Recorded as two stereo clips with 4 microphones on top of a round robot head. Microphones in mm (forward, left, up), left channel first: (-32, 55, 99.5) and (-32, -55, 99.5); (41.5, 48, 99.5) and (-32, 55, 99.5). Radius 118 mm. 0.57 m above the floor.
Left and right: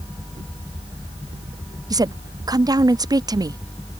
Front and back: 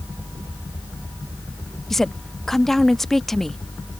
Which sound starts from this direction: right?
A woman speaking, at 1.9 s.